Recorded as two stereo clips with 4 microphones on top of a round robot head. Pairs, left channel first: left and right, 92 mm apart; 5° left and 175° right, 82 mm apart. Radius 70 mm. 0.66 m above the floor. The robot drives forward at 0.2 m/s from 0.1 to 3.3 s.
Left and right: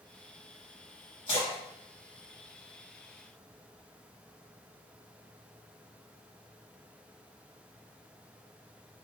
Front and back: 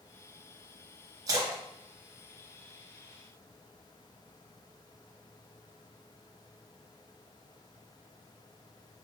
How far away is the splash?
About 0.8 m.